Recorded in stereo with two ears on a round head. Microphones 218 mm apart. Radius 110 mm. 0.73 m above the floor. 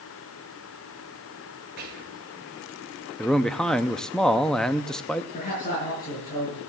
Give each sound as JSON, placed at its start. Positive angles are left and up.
{"t": 1.8, "sound": "whispering", "side_deg": -45, "distance_m": 3.5}
{"t": 3.2, "sound": "a man speaking", "side_deg": 0, "distance_m": 0.7}
{"t": 5.3, "sound": "a man speaking", "side_deg": 35, "distance_m": 9.5}